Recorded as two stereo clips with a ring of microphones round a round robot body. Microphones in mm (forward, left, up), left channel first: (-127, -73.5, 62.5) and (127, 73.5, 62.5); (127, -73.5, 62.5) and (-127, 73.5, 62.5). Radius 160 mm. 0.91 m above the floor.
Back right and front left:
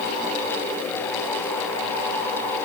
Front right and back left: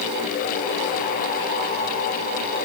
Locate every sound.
Only background noise.